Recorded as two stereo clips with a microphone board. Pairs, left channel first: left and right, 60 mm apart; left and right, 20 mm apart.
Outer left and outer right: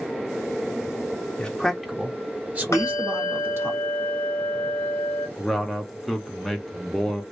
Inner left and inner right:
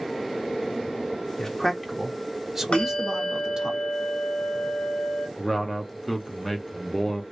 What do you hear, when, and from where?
1.4 s a man speaking: 15° left (ahead or behind), 0.6 m; by 3.7 s 40° right (ahead or behind), 1.4 m
2.7 s a bell: 55° left (ahead or behind), 1.2 m
5.4 s a man speaking: 5° left (ahead or behind), 0.7 m